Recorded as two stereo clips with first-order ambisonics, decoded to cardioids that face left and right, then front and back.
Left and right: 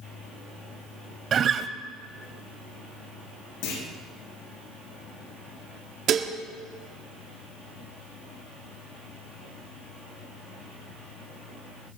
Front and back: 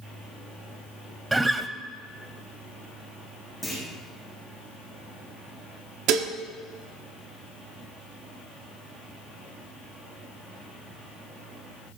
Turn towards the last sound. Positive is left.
turn(degrees=-145)